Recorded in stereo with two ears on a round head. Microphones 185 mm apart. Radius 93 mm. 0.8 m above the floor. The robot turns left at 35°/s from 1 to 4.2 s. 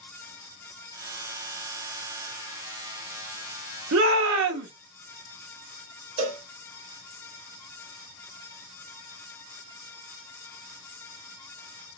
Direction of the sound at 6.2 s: 30° right (ahead or behind).